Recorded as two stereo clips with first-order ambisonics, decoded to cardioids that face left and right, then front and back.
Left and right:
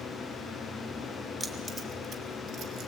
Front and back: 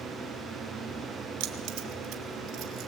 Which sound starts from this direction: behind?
Keys jangling, at 1.4 s.